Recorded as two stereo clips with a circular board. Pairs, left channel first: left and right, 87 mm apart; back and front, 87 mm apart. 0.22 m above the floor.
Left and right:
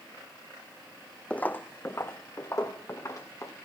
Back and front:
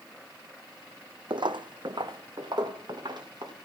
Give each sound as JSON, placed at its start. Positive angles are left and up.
{"t": 1.3, "sound": "footsteps", "azimuth_deg": 15, "distance_m": 0.5}